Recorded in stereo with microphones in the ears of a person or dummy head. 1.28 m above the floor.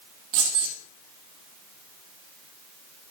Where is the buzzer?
No buzzer in this recording.